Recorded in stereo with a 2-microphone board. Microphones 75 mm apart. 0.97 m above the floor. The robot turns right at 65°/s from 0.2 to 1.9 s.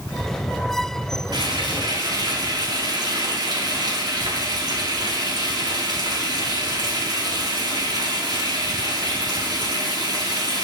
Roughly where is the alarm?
No alarm in this recording.